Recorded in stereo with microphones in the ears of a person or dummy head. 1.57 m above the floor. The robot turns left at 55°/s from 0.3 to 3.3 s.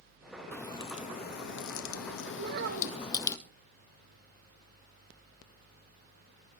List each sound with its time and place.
0.5 s a crack: 165° left, 1.6 m; by 3.4 s 15° left, 1.6 m
2.4 s a child speaking: 50° right, 1.8 m; by 3.1 s 90° right, 1.8 m